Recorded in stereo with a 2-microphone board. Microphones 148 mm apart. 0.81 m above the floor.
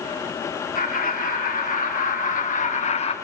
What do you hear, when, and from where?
0.8 s laughter: 70° left (ahead or behind), 1.8 m; by 3.1 s 40° left (ahead or behind), 0.7 m